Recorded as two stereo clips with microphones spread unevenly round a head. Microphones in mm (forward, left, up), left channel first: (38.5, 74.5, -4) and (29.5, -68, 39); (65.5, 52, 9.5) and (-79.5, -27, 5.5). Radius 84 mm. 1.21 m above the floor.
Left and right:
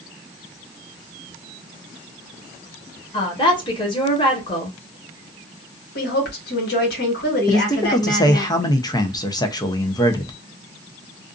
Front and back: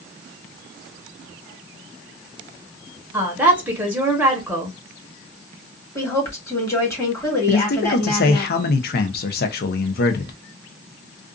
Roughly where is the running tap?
I don't hear a running tap.